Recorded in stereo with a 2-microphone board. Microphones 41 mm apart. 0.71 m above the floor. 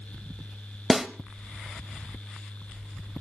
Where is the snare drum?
5° right (ahead or behind), 0.9 m.